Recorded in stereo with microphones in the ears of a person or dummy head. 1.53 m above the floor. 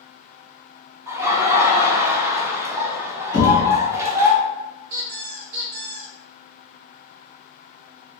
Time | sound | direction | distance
1.1 | laughter | 20° right (ahead or behind) | 0.8 m
3.3 | knocking | 15° right (ahead or behind) | 1.1 m
4.9 | a squeak | 45° right (ahead or behind) | 0.6 m